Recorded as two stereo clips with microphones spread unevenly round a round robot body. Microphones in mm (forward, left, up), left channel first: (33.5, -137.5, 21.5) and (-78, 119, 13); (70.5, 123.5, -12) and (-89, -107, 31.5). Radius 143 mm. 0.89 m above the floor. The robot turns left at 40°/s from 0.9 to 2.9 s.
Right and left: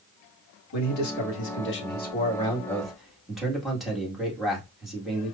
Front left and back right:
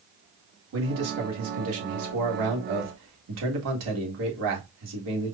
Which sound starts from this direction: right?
A man speaking, at 0.7 s.